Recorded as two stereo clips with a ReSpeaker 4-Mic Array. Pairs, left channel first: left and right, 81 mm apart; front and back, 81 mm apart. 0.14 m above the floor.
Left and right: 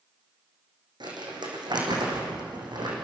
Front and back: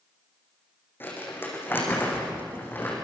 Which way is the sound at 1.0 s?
65° right.